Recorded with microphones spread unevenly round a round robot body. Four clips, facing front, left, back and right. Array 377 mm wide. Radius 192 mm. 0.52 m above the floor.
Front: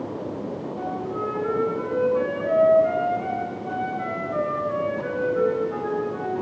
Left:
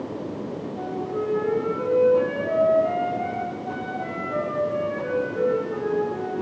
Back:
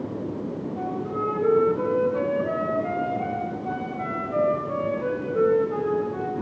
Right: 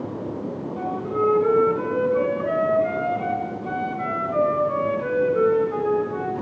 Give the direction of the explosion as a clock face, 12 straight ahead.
I don't hear an explosion.